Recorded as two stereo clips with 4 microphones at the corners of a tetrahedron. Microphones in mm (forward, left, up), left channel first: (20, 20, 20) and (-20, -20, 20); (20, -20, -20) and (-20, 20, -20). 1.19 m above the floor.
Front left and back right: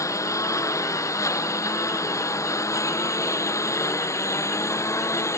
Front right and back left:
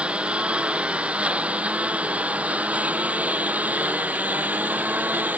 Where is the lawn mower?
65° left; by 5.4 s 75° left.